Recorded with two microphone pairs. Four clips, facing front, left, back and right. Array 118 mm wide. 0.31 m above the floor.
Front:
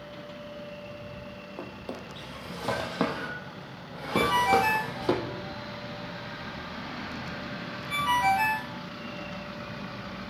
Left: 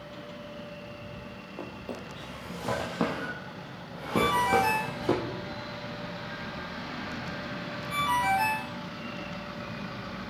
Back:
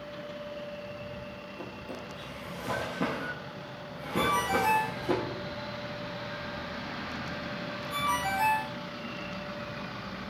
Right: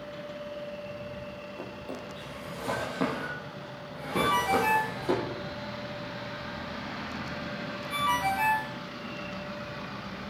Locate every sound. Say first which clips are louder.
1.6 s a drawer: left 3 dB, front 3 dB; 5° left, 3.5 m
4.1 s a ringtone: left 1 dB, front 5 dB; 10° right, 6 m